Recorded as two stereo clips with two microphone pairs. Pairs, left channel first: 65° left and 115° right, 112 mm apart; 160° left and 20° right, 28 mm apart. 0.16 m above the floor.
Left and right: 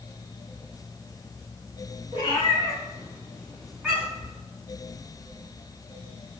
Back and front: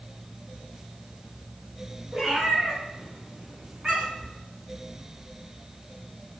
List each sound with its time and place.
2.1 s a cat meowing: 55° left, 1.3 m; by 4.3 s 60° right, 1.1 m